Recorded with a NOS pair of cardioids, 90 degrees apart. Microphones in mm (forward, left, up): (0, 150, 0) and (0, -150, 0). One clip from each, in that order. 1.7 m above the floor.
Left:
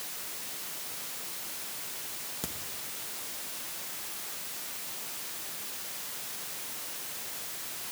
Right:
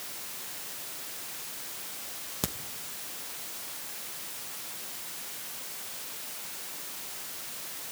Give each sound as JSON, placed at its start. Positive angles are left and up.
{"t": 2.4, "sound": "a crack", "azimuth_deg": -50, "distance_m": 1.7}